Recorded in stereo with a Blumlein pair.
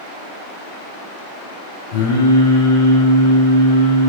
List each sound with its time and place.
1.9 s singing: 60° left, 0.8 m